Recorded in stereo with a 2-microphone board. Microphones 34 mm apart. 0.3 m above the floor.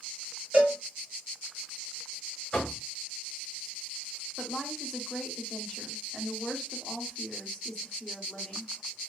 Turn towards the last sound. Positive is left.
turn(degrees=20)  # may be behind; listen again after turning